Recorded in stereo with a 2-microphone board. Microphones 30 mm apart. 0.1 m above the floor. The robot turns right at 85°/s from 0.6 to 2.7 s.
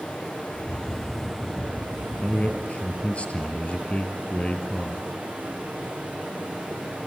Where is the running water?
130° left, 5 m; by 7.1 s 50° right, 5 m.